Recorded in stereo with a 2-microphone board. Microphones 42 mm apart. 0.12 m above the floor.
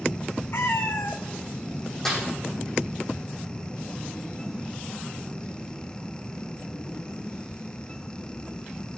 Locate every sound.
0.5 s a cat meowing: 60° left (ahead or behind), 1.0 m
2.0 s a snare drum: 10° left (ahead or behind), 5.5 m